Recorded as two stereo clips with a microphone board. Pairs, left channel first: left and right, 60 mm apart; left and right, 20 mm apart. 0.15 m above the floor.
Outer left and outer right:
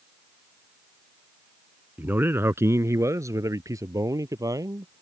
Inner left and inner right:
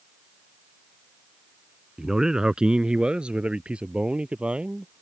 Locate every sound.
2.0 s a man speaking: 30° right (ahead or behind); by 5.0 s 75° right (ahead or behind)